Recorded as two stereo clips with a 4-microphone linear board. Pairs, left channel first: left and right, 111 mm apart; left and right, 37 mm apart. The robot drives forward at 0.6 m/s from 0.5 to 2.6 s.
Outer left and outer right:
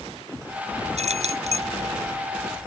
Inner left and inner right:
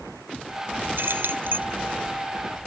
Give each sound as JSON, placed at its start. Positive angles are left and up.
{"t": 1.0, "sound": "keys jangling", "side_deg": -75}